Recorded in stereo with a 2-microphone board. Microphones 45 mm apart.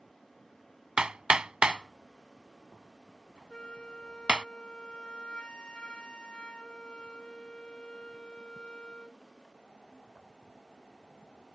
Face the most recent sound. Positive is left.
turn(degrees=20)  # may be behind; listen again after turning